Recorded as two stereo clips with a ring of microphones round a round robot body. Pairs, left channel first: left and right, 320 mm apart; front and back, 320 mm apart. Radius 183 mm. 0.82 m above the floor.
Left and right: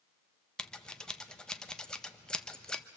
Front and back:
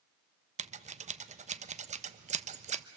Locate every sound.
0.6 s scissors: 175° left, 0.8 m